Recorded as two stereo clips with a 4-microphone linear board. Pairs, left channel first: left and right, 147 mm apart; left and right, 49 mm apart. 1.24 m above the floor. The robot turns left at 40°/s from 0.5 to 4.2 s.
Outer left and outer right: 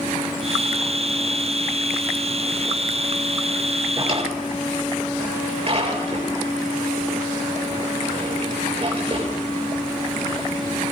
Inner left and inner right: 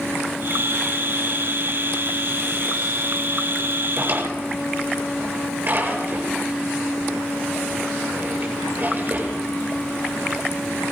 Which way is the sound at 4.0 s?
35° right (ahead or behind).